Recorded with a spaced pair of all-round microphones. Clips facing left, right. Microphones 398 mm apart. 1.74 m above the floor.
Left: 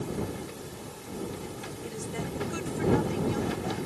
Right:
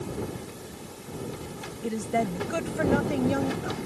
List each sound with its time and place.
1.8 s a woman speaking: 80° right; by 3.8 s 85° right